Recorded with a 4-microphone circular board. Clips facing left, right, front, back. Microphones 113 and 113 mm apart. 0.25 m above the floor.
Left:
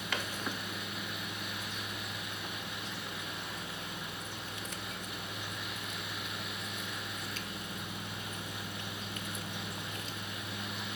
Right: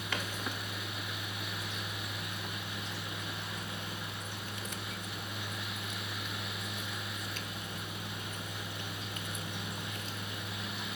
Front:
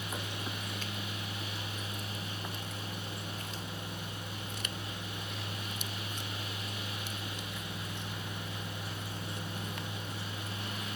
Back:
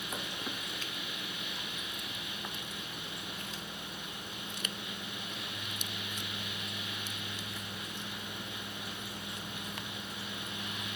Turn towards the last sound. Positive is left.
No sound to turn to.